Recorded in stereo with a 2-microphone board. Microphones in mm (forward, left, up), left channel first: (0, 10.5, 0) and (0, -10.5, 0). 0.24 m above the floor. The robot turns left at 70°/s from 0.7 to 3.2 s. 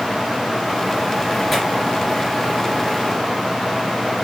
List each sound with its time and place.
1.5 s tearing paper: 5° right (ahead or behind), 3 m; by 1.6 s 5° left (ahead or behind), 3 m